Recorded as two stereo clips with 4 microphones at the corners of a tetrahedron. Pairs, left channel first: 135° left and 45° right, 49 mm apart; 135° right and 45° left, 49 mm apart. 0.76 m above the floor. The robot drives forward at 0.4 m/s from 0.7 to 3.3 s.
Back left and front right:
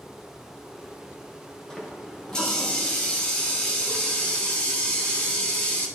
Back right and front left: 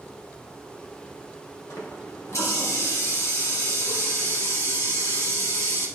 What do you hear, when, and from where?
1.7 s a running tap: 145° right, 2.0 m; by 5.9 s 155° right, 2.5 m